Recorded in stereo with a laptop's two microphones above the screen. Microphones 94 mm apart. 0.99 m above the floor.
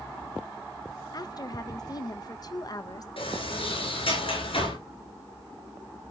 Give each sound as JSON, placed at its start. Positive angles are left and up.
{"t": 1.1, "sound": "a woman speaking", "side_deg": 40, "distance_m": 0.9}
{"t": 3.2, "sound": "a sliding door", "side_deg": 70, "distance_m": 4.5}